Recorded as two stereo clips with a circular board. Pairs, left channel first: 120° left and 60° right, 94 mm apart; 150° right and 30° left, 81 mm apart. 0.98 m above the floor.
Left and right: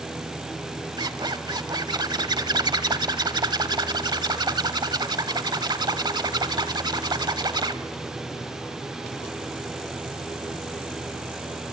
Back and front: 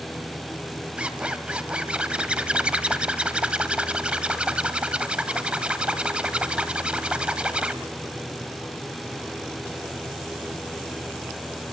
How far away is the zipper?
About 1.2 m.